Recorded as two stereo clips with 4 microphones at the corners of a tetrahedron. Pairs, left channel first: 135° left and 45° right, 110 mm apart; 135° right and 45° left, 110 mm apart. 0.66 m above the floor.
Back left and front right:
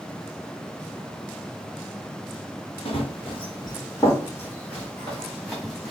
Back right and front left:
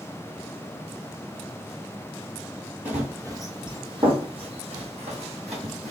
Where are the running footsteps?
120° left, 1.2 m; by 5.9 s 45° left, 2.5 m.